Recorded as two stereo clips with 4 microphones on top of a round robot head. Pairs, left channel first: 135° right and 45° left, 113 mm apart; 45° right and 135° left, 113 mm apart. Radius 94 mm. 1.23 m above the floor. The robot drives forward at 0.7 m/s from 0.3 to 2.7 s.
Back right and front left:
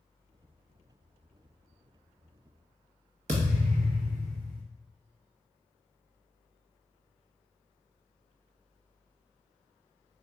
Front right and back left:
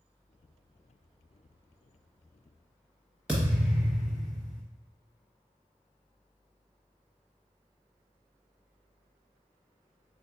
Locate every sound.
3.3 s a thud: 55° left, 0.6 m